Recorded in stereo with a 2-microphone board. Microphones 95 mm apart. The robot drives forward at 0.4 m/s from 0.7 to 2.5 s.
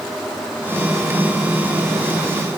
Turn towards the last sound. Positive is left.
No sound to turn to.